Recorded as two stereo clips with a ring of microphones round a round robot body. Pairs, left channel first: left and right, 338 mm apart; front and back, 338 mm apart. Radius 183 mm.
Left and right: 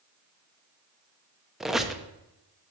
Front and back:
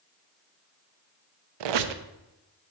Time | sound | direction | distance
1.6 | a squeak | straight behind | 0.7 m